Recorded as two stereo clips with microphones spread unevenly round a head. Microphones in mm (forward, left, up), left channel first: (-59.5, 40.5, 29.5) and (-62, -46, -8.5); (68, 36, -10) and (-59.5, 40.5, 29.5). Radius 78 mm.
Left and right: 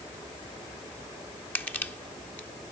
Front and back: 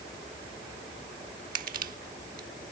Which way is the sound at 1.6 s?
165° left.